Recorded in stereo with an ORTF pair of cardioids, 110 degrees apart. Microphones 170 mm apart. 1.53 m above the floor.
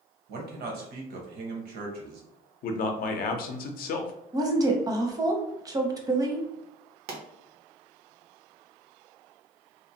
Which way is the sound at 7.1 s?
65° right.